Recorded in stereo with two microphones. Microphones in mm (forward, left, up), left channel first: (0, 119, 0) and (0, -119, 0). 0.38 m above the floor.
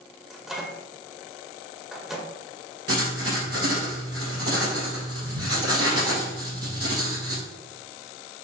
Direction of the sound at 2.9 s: 65° right (ahead or behind).